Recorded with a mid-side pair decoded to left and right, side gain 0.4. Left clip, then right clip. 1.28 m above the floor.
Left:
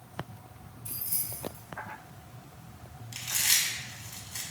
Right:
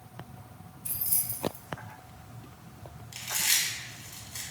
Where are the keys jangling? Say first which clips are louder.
Right 2 dB; 70° right, 0.6 m.